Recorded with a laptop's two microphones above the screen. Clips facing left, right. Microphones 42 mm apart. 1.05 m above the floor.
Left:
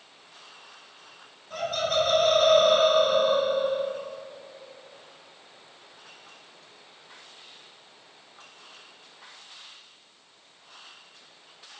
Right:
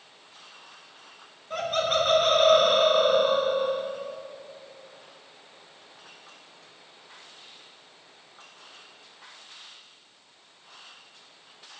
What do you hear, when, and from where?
1.5 s laughter: 40° right (ahead or behind), 1.6 m